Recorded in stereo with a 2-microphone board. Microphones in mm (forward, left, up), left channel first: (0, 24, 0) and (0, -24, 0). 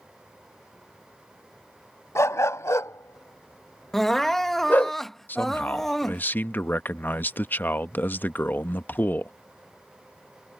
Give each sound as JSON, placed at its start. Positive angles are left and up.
{"t": 2.1, "sound": "a dog barking", "side_deg": 70}
{"t": 3.9, "sound": "crying", "side_deg": 5}
{"t": 5.3, "sound": "a man speaking", "side_deg": 40}